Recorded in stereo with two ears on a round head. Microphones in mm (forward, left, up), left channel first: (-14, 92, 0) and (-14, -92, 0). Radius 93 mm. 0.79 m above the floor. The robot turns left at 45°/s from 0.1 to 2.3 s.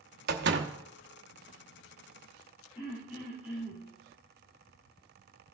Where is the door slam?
50° right (ahead or behind), 0.9 m; by 0.7 s 60° right (ahead or behind), 0.9 m.